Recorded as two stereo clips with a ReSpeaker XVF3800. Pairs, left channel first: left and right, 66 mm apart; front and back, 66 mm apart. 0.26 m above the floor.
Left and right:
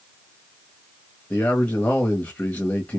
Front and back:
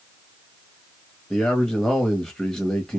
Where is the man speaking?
65° left, 1.0 m.